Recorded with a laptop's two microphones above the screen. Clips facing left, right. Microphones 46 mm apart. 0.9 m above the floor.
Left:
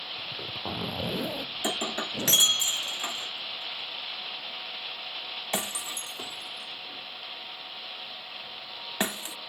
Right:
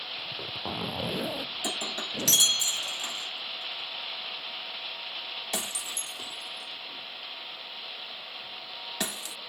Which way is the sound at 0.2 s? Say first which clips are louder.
Left 1 dB; 10° right (ahead or behind).